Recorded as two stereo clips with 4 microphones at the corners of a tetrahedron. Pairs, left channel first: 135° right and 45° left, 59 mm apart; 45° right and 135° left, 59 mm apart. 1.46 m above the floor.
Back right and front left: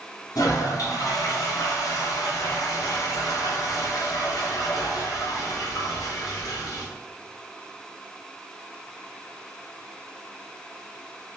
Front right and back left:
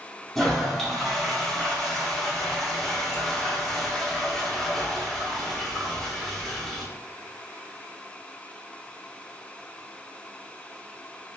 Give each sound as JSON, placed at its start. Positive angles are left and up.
{"t": 0.3, "sound": "a toilet flushing", "azimuth_deg": -130, "distance_m": 0.5}